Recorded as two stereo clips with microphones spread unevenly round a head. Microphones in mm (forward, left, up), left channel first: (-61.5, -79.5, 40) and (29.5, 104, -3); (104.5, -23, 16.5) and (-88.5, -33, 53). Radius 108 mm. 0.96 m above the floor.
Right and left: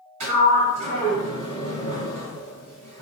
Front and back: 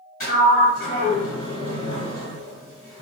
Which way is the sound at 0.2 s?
60° left.